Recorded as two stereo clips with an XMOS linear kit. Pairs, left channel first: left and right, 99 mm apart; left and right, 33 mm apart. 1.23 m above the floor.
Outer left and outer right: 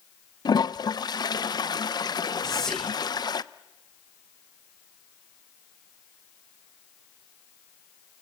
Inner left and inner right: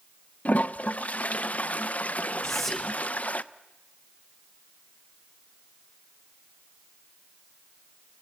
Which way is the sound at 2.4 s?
5° left (ahead or behind).